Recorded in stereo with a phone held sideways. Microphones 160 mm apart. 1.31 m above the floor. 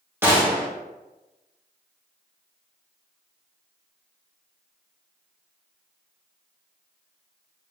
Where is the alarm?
No alarm in this recording.